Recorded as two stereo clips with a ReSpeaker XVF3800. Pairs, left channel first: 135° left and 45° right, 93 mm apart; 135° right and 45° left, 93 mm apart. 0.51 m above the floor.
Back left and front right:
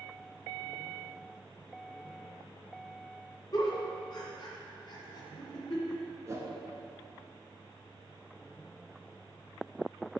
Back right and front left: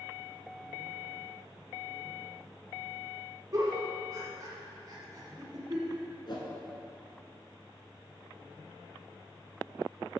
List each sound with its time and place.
3.5 s a giggle: 95° left, 1.8 m
6.3 s a whoosh: 100° right, 1.2 m